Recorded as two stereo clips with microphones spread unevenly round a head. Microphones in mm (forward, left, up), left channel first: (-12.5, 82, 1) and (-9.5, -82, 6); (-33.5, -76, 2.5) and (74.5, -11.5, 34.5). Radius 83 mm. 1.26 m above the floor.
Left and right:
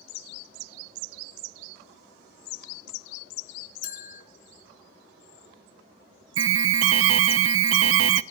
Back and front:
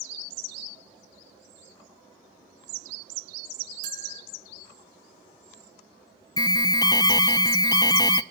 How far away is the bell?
About 2.5 m.